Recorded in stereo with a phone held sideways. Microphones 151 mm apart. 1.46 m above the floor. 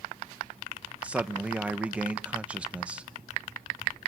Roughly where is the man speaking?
Centre.